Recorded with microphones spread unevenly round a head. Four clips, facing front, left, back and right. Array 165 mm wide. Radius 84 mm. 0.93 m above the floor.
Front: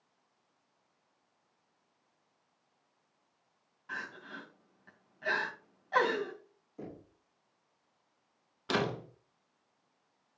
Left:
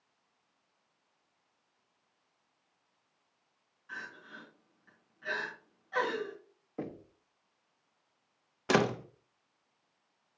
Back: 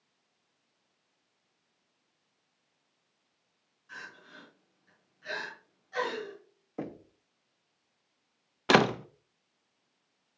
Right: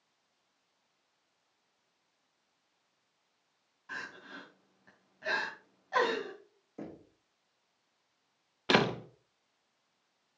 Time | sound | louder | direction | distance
3.9 | crying | right 2 dB, front 5 dB | 40° right | 2.5 m
6.8 | knocking | left 4 dB, back 7 dB | 165° left | 1.3 m
8.7 | a door slam | even, back 9 dB | 175° right | 0.7 m